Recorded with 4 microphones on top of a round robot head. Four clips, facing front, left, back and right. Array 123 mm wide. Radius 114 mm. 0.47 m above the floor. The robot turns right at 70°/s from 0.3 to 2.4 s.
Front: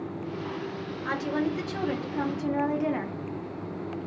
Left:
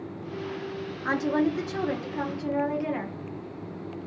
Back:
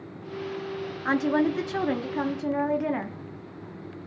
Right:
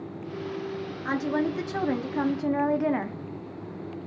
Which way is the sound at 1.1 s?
155° left.